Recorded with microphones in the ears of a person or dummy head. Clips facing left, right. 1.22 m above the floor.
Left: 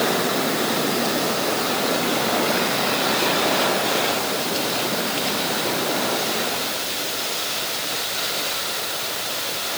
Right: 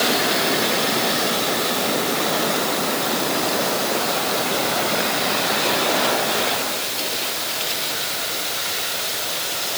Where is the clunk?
No clunk in this recording.